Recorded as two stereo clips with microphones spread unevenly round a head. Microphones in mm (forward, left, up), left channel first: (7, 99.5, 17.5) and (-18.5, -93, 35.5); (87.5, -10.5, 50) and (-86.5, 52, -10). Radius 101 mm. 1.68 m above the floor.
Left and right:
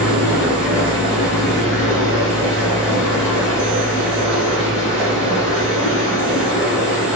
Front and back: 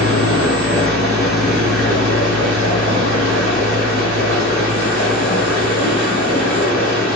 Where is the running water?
165° left, 1.9 m.